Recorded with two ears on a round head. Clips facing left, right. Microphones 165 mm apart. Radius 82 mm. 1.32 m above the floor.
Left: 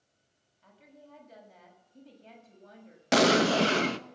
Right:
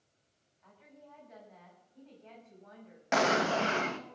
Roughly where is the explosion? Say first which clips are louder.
Left 6 dB; left.